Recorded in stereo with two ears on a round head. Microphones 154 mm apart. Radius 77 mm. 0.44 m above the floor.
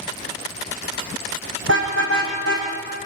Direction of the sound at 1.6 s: 80° right.